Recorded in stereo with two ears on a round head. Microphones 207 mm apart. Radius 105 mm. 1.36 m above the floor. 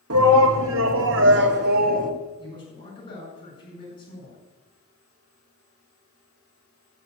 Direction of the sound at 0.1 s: 75° right (ahead or behind).